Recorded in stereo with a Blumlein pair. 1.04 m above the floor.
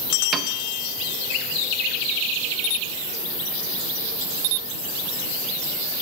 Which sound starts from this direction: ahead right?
A piano, at 0.3 s.